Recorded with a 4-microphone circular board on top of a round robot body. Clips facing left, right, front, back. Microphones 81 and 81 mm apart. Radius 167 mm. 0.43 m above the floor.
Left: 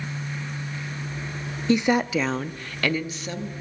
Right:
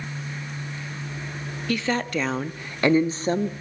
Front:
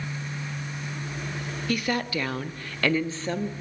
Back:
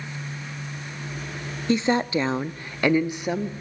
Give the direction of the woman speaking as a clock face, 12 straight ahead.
7 o'clock.